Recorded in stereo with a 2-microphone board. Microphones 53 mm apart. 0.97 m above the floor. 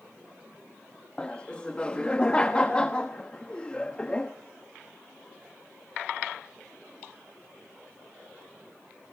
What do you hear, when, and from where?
1.2 s laughter: 20° left (ahead or behind), 1.0 m